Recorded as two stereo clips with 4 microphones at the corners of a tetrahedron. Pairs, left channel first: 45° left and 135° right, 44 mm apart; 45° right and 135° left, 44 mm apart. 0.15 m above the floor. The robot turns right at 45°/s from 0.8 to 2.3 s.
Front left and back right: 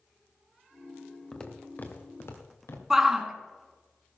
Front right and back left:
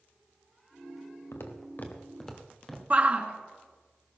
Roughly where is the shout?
Behind left.